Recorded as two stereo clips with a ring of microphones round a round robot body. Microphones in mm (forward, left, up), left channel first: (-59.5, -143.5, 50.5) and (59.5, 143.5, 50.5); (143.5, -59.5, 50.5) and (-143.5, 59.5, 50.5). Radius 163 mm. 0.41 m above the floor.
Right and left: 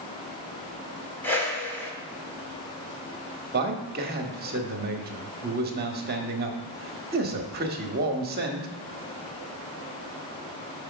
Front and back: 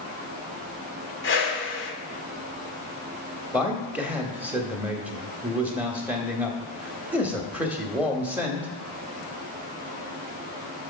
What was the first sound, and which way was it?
A whoosh, 35° right.